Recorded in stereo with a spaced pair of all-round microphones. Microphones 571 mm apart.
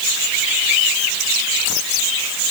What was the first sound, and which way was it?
Only background noise.